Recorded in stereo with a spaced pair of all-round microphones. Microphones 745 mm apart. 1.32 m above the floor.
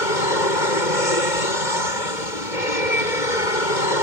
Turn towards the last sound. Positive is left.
turn(degrees=75)  # may be behind; listen again after turning